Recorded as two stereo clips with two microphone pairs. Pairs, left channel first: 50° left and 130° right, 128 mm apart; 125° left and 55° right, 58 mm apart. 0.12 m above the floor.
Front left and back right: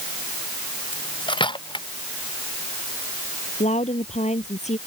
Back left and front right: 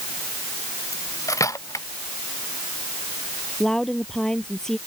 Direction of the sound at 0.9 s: 100° left.